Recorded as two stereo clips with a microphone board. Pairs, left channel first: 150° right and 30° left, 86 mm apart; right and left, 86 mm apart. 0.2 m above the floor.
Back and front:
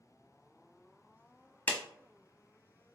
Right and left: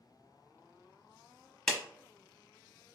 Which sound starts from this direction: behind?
A clap, at 1.7 s.